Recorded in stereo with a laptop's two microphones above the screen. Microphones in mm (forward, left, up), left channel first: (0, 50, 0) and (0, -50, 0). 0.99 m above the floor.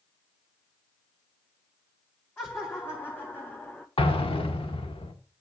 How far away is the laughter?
About 2 m.